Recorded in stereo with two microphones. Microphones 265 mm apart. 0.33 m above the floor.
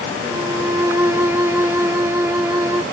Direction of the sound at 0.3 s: 10° right (ahead or behind).